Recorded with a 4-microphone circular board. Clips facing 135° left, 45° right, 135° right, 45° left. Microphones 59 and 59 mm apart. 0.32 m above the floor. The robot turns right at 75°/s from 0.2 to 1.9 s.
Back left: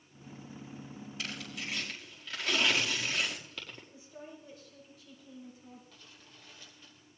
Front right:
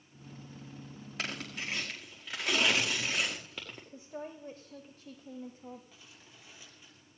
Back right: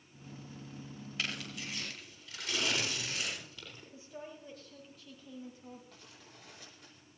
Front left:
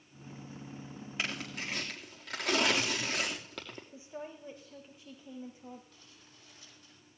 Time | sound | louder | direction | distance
1.2 | tearing paper | front right 3 dB, front left 3 dB | 25° right | 4.5 m
3.9 | a woman speaking | front right 6 dB, front left 3 dB | 20° right | 1.9 m
5.9 | crumpling | even, back right 3 dB | 120° right | 6.5 m